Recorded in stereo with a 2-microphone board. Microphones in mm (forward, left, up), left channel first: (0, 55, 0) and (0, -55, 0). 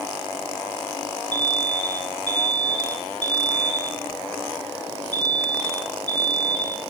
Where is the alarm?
45° right (ahead or behind), 4 m.